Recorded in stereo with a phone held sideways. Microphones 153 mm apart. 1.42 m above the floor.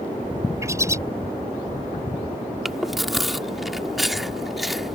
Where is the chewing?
Centre (ahead or behind).